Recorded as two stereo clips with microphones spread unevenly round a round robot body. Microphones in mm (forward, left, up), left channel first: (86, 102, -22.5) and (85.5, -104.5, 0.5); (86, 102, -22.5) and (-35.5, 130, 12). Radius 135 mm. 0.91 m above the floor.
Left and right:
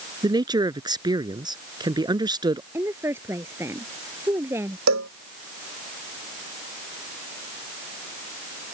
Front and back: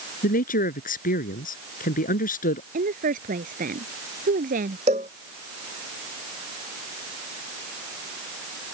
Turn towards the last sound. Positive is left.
turn(degrees=-130)